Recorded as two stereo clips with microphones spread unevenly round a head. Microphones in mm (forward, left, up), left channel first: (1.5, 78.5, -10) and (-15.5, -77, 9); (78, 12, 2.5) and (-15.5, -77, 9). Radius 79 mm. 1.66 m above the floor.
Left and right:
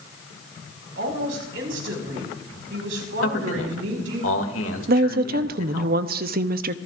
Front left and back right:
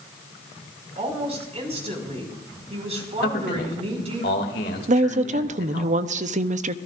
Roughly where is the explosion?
I don't hear an explosion.